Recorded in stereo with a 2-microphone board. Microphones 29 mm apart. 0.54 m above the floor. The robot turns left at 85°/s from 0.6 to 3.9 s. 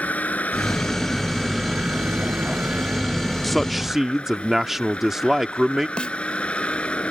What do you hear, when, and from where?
0.0 s a vehicle: 60° left; by 7.1 s 135° left
3.4 s a man speaking: 5° left (ahead or behind); by 5.9 s 10° right (ahead or behind)
6.0 s a snare drum: 40° left (ahead or behind)